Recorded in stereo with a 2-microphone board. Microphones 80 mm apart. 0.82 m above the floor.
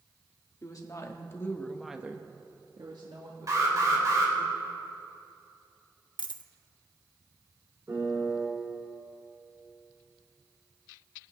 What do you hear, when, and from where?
0.6 s a woman speaking: 50° left (ahead or behind), 1.8 m; by 4.5 s 75° right (ahead or behind), 3 m
3.5 s an alarm: 45° right (ahead or behind), 2.5 m
6.2 s a dropped coin: 70° left (ahead or behind), 0.6 m
7.9 s a piano: 40° right (ahead or behind), 3.5 m